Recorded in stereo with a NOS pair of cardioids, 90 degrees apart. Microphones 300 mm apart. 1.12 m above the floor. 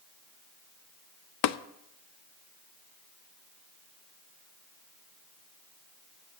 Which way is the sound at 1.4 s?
60° left.